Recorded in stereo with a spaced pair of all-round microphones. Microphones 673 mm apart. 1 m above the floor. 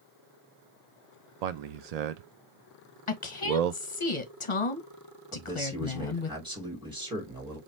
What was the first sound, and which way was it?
A man speaking, 70° right (ahead or behind).